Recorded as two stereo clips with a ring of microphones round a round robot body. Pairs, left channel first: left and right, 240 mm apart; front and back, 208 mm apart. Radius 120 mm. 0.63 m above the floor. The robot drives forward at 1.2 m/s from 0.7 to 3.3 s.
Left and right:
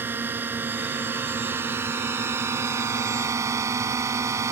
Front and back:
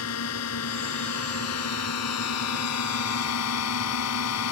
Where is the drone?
10° right.